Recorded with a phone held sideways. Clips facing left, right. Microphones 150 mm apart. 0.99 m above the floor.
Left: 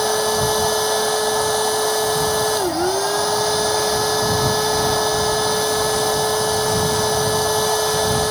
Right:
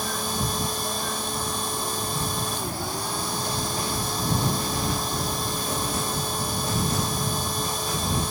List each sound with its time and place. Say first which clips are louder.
0.0 s a machine running: left 11 dB; 80° left